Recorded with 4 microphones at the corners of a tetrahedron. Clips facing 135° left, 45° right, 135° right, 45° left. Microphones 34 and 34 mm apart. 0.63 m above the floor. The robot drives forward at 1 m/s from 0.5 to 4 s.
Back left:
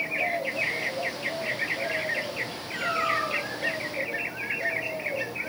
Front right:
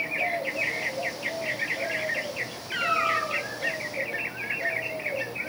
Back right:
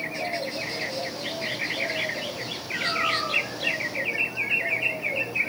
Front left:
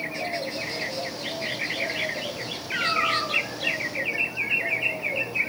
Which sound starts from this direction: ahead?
A cat meowing, at 2.7 s.